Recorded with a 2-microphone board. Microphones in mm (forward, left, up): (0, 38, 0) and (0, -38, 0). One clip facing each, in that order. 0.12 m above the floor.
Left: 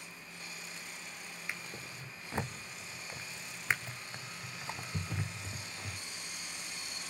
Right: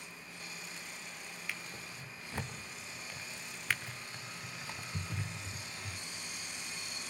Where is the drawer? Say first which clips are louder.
Left 1 dB; 20° left (ahead or behind), 1.9 m.